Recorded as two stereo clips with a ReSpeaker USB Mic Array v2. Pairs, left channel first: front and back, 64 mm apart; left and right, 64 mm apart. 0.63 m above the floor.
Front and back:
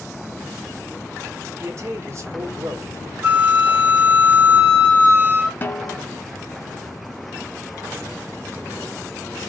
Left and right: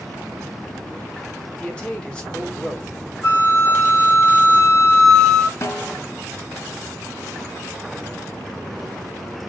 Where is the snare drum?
55° left, 0.7 m.